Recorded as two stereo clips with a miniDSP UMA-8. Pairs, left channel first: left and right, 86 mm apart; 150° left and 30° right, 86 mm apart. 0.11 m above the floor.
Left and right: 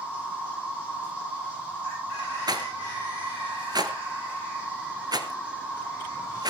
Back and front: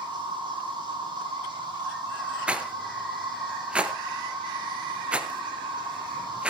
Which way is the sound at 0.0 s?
15° right.